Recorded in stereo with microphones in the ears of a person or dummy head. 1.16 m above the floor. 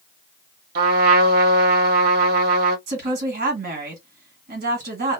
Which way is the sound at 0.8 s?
55° right (ahead or behind).